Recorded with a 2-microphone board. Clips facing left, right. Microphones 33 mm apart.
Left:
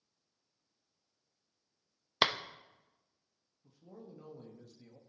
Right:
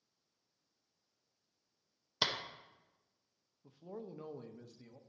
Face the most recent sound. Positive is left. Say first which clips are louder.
# right 6 dB
turn(degrees=-40)  # may be behind; listen again after turning